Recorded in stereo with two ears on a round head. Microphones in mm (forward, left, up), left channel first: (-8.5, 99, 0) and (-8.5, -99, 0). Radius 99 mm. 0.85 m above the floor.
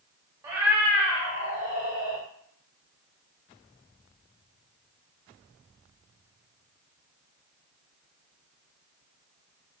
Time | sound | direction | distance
0.4 | a cat meowing | 15° right (ahead or behind) | 0.8 m